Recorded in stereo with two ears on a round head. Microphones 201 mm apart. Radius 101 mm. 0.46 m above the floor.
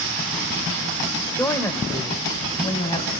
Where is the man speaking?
10° left (ahead or behind), 1.1 m; by 3.1 s 25° left (ahead or behind), 2.5 m.